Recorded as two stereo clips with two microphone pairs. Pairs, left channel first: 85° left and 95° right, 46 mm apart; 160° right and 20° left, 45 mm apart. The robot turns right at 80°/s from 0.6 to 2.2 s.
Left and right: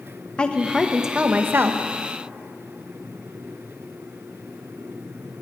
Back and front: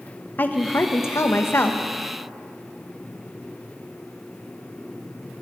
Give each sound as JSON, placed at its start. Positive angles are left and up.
{"t": 0.4, "sound": "a woman speaking", "azimuth_deg": 155, "distance_m": 0.9}